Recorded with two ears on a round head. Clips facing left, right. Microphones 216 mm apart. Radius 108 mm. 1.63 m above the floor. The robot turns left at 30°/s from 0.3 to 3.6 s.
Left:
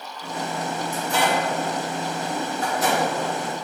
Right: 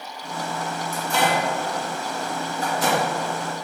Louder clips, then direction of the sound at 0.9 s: Right 1 dB; 65° right (ahead or behind).